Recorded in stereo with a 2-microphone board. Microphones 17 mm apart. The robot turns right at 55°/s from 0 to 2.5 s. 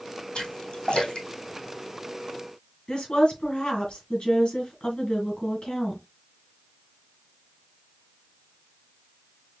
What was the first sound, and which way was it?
A splash, 65° left (ahead or behind).